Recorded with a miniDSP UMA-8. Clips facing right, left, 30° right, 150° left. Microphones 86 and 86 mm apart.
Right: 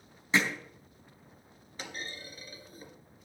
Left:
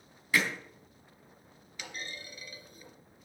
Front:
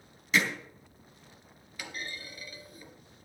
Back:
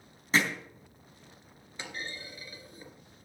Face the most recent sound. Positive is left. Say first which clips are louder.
# right 1 dB, even
turn(degrees=-145)